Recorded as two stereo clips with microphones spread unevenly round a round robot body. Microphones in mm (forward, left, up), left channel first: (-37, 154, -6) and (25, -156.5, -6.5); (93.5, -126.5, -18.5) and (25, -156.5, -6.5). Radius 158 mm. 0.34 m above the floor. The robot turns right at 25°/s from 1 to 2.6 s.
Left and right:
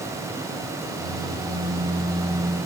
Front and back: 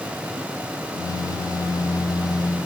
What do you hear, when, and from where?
Only background noise.